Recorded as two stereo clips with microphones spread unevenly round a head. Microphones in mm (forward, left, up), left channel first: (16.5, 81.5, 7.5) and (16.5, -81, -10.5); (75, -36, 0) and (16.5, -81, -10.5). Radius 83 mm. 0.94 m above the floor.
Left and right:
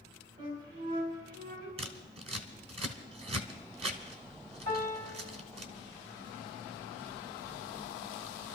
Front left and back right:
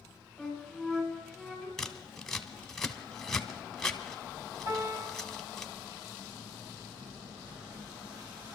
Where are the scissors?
40° right, 1.2 m.